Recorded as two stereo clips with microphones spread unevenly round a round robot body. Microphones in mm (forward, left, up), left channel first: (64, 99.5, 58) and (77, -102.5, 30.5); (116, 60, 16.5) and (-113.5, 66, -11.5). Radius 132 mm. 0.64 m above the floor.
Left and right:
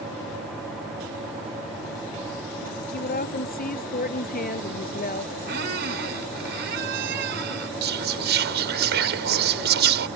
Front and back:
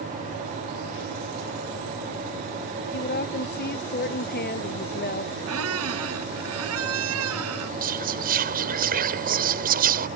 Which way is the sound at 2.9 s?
45° left.